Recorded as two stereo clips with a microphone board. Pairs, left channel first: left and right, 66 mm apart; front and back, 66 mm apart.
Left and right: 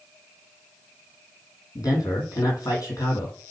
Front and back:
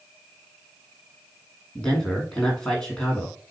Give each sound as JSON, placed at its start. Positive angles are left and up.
{"t": 1.8, "sound": "a man speaking", "azimuth_deg": 80, "distance_m": 3.5}